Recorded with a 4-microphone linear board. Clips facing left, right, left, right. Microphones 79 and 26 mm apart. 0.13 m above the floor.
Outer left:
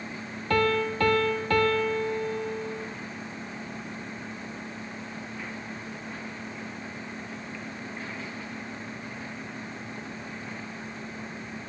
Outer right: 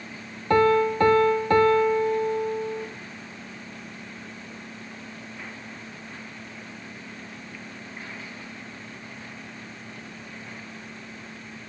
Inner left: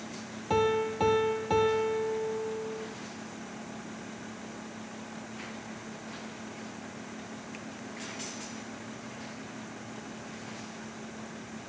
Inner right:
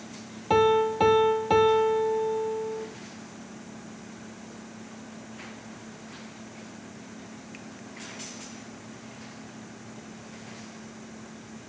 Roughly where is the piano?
Right.